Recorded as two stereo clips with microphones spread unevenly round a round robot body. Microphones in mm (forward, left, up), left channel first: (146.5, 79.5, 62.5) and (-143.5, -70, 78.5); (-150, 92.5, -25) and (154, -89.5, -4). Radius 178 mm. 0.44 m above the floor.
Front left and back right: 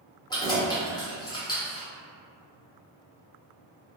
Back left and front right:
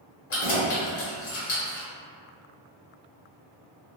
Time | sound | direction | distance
0.3 | keys jangling | 100° left | 1.2 m